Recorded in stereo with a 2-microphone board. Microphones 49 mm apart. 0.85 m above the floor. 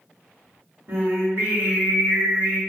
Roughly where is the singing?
Right.